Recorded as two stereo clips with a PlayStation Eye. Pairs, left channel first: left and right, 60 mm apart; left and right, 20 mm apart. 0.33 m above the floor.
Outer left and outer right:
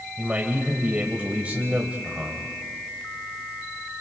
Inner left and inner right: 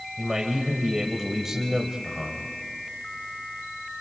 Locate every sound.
0.2 s a man speaking: 25° right (ahead or behind), 1.4 m